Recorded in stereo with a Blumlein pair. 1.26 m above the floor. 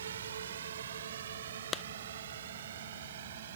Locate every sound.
0.0 s a drone: 65° right; by 3.6 s 60° right
1.7 s a clap: 15° left